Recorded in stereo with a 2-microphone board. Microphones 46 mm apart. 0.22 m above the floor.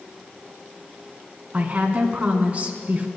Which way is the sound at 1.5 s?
30° right (ahead or behind).